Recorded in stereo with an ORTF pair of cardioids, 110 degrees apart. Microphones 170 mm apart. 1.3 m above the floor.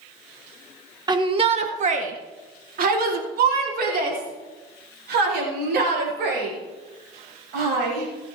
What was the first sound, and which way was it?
A shout, 25° right.